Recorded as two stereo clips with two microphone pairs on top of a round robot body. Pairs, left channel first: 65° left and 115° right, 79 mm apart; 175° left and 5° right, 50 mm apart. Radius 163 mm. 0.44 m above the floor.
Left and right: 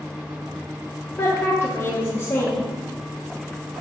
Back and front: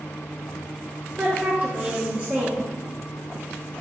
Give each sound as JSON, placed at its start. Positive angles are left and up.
{"t": 1.2, "sound": "a woman speaking", "azimuth_deg": 40, "distance_m": 0.9}